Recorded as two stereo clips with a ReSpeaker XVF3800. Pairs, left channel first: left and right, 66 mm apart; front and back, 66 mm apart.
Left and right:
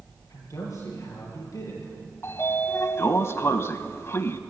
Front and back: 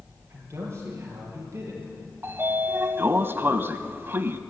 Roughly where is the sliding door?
Behind left.